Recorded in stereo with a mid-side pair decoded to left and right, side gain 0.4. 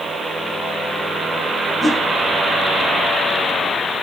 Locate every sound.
1.8 s a whoosh: 25° left, 2.5 m